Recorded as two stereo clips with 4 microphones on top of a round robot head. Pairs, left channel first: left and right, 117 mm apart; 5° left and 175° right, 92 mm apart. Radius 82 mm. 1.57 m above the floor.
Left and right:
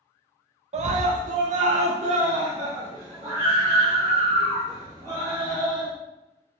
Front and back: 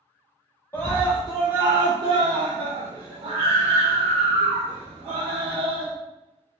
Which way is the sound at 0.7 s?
65° right.